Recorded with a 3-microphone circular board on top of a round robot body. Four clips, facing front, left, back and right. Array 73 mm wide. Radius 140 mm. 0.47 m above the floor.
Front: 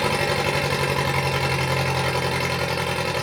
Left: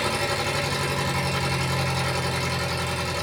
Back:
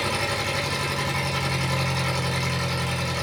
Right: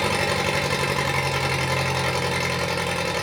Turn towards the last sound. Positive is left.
turn(degrees=-35)